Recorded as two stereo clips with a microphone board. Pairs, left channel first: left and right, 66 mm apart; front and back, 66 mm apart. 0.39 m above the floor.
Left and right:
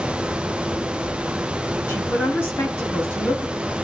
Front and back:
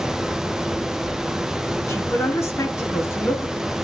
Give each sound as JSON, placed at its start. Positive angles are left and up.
{"t": 1.9, "sound": "a man speaking", "azimuth_deg": 35, "distance_m": 5.0}